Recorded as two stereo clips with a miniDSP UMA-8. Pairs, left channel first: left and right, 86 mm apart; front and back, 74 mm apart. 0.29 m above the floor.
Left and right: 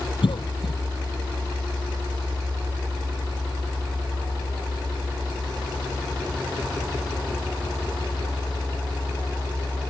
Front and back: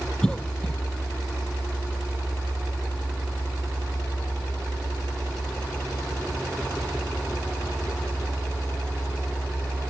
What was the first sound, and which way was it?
A cough, 80° left.